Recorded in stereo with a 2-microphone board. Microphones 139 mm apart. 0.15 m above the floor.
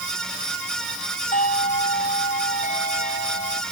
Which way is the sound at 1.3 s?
65° left (ahead or behind).